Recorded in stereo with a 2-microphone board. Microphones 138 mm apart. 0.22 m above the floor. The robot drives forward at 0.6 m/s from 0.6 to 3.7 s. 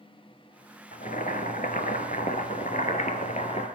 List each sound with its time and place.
0.9 s boiling: 70° left (ahead or behind), 1.9 m; by 3.7 s 55° left (ahead or behind), 2 m